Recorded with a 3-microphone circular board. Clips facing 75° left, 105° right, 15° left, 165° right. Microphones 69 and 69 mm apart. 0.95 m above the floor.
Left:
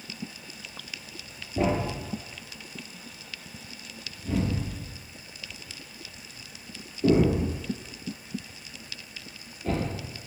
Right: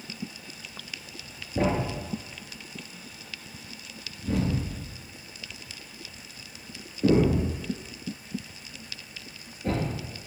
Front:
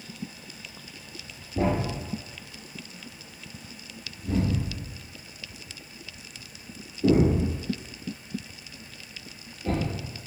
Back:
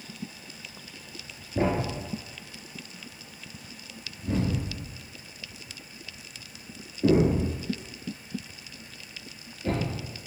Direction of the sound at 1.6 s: 130° right.